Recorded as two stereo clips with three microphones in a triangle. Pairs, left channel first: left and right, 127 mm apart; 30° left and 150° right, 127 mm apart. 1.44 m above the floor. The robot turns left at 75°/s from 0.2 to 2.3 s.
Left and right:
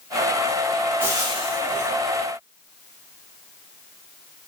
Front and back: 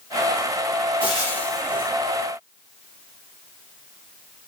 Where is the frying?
15° right, 1.3 m; by 1.9 s 85° right, 1.3 m.